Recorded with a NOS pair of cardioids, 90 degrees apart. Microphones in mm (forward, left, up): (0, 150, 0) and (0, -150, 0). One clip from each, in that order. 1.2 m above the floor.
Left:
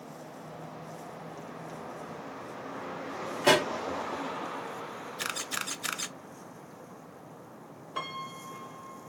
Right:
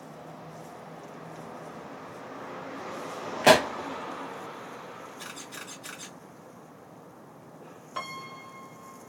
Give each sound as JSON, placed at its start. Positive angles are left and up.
{"t": 3.4, "sound": "a pop", "azimuth_deg": -45, "distance_m": 0.8}
{"t": 5.2, "sound": "a camera shutter", "azimuth_deg": 55, "distance_m": 0.6}
{"t": 8.0, "sound": "a piano", "azimuth_deg": -10, "distance_m": 0.7}